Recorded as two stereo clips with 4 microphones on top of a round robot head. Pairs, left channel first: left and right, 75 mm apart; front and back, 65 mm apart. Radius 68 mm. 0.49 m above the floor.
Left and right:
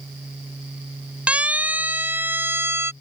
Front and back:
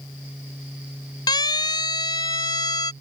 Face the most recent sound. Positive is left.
turn(degrees=-35)